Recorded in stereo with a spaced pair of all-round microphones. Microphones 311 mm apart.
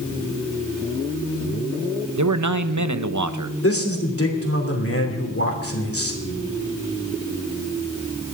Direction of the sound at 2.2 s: 65° right (ahead or behind).